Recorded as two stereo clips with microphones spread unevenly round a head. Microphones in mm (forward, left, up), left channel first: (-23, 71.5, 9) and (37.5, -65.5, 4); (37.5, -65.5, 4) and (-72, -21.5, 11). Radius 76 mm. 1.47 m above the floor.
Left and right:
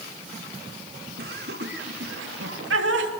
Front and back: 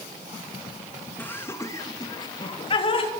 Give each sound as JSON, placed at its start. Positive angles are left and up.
{"t": 1.2, "sound": "laughter", "azimuth_deg": -95, "distance_m": 2.5}